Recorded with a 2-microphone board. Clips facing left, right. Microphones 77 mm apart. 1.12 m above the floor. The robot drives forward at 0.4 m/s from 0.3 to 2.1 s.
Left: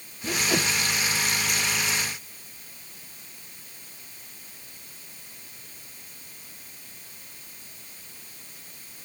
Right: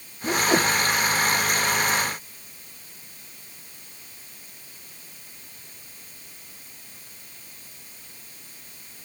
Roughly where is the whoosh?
Right.